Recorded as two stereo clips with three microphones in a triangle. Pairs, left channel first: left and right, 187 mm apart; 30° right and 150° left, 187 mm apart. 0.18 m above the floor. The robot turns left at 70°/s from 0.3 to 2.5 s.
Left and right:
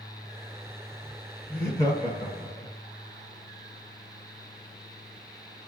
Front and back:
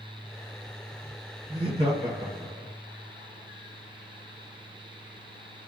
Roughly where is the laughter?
Behind.